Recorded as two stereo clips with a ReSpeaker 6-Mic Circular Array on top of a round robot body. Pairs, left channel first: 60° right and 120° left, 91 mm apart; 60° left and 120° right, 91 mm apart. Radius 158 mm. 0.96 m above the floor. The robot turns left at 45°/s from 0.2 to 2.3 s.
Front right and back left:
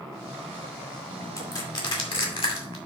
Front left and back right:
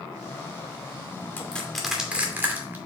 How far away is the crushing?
About 2.5 m.